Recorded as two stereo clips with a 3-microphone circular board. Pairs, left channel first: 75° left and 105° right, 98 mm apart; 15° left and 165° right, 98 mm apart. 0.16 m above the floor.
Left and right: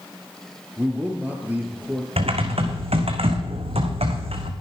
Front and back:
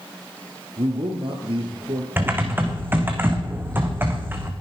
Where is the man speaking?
175° right, 3.5 m.